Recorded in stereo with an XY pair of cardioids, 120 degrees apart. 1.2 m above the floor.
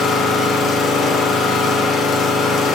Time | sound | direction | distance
0.0 | an engine running | 60° left | 4 m